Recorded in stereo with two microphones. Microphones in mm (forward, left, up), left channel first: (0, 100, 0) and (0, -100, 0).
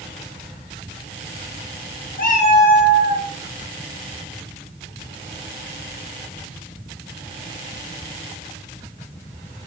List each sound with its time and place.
2.2 s a cat meowing: 50° left (ahead or behind), 0.6 m; by 3.3 s 35° right (ahead or behind), 0.6 m